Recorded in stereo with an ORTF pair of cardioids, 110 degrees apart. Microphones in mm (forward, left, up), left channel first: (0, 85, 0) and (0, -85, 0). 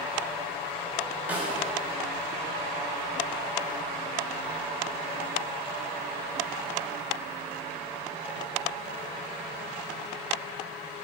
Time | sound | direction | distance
1.3 | a snare drum | 10° right | 3.5 m